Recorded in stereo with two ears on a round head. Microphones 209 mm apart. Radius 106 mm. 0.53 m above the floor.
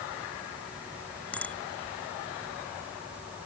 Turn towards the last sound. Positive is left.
turn(degrees=5)  # may be behind; listen again after turning